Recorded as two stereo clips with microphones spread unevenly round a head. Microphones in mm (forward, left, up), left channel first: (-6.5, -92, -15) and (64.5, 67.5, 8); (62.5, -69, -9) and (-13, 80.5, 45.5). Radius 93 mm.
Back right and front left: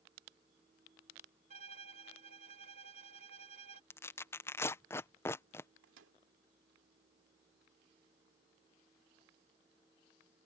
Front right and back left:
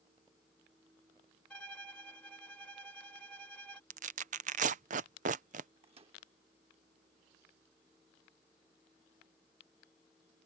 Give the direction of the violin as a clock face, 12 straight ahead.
11 o'clock.